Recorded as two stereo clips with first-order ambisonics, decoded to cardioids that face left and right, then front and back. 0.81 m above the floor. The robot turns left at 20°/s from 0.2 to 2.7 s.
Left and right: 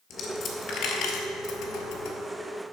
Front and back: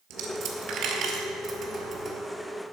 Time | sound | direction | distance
0.1 | a dropped coin | 145° left | 1.4 m